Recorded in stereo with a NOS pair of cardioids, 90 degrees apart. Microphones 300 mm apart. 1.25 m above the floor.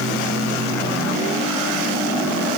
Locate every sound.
Only background noise.